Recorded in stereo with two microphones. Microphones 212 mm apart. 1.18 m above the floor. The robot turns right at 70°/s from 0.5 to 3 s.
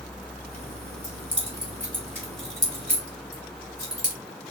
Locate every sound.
1.0 s keys jangling: 20° left (ahead or behind), 3.5 m; by 4.2 s 65° right (ahead or behind), 3.5 m